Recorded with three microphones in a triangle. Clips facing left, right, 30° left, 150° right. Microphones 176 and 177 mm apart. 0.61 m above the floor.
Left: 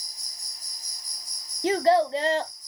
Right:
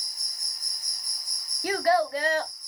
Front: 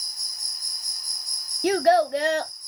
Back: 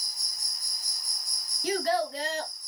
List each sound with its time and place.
0.0 s an insect: 120° left, 1.7 m
1.6 s a child speaking: 30° left, 0.6 m